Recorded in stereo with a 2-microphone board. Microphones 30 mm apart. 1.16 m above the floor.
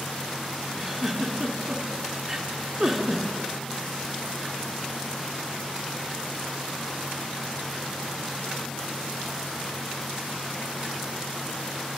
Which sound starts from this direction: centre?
A giggle, at 0.8 s.